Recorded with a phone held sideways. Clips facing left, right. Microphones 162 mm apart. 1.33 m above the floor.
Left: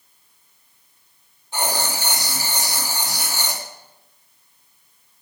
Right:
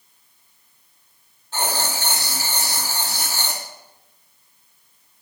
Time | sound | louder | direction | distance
1.5 | writing | left 1 dB | 15° left (ahead or behind) | 3 m